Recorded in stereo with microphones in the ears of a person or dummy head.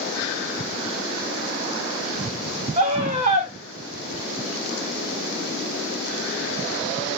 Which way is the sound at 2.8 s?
35° right (ahead or behind).